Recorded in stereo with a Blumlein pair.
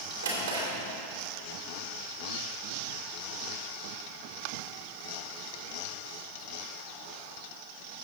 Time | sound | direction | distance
0.2 | a drawer | 70° right | 3 m